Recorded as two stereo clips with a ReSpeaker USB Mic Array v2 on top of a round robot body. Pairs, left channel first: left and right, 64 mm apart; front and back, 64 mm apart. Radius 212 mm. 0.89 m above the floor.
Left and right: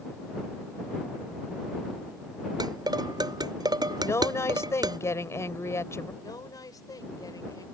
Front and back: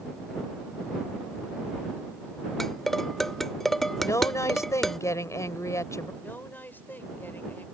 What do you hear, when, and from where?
2.6 s dishes clattering: 85° right
4.0 s a woman speaking: 40° left
6.2 s a woman speaking: 60° left